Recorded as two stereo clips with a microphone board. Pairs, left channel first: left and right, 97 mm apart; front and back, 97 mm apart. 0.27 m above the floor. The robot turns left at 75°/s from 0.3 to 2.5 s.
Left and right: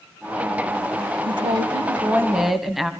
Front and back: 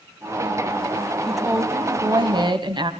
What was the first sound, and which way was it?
A woman speaking, 85° right.